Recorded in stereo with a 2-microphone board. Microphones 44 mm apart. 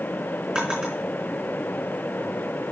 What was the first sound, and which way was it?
A drawer, 20° right (ahead or behind).